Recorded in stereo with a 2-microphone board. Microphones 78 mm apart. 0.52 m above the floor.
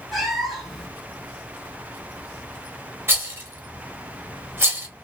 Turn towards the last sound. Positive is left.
turn(degrees=-30)  # may be behind; listen again after turning